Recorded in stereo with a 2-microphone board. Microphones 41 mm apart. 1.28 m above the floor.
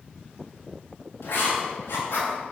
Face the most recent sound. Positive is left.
turn(degrees=85)